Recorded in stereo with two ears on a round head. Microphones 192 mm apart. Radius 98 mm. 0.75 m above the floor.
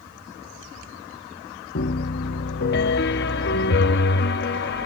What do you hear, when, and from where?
1.8 s a piano: 50° left (ahead or behind), 0.6 m